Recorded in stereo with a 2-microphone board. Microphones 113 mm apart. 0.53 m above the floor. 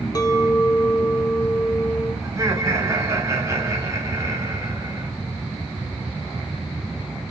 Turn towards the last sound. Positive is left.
turn(degrees=-25)  # may be behind; listen again after turning